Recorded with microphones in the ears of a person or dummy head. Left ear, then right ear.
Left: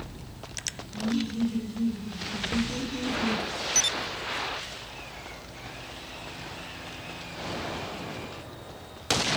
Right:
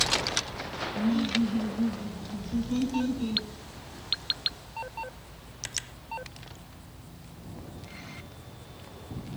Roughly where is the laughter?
Left.